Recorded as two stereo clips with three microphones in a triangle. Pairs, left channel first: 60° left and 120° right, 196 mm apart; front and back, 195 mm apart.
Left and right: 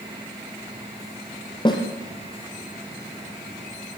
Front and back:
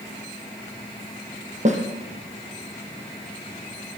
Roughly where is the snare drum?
Behind left.